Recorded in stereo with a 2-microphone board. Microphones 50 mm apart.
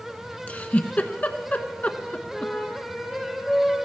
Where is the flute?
10° left (ahead or behind), 3 m.